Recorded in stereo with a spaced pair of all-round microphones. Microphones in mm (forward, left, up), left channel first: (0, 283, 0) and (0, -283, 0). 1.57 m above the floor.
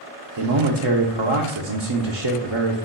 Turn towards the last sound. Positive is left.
turn(degrees=-55)  # may be behind; listen again after turning